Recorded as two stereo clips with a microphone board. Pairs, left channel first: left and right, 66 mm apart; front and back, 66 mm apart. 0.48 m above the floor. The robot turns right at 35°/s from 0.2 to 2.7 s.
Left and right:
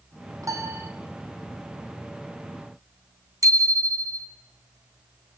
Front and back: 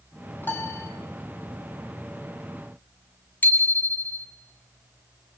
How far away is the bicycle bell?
About 3 m.